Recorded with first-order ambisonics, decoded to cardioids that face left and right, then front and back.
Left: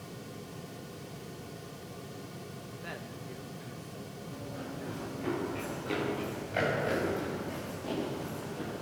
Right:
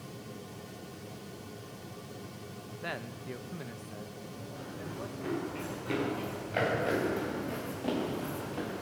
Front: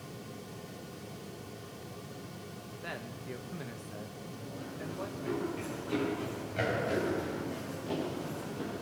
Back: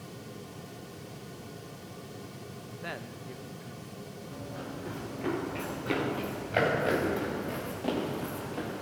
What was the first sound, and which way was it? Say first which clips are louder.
A man speaking: right 5 dB, back 2 dB; 125° right.